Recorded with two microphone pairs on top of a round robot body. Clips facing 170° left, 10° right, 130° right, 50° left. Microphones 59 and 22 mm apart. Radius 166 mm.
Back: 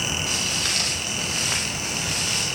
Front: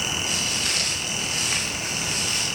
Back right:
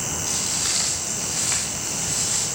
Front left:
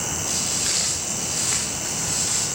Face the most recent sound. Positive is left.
turn(degrees=150)